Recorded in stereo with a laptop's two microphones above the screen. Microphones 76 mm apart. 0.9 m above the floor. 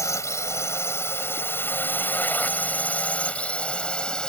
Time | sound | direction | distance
0.0 | a drone | 40° left (ahead or behind) | ?